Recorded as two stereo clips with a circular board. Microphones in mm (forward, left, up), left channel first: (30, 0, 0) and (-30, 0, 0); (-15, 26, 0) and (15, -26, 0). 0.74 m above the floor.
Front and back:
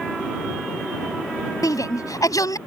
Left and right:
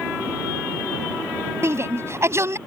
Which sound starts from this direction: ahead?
A shout, at 1.6 s.